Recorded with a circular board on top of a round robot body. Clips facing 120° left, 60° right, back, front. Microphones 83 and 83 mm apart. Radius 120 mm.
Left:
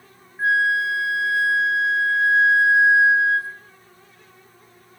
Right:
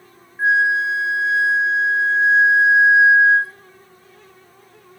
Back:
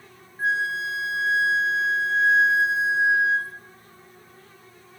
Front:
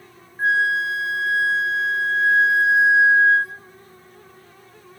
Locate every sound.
0.4 s a flute: 5° left, 1.6 m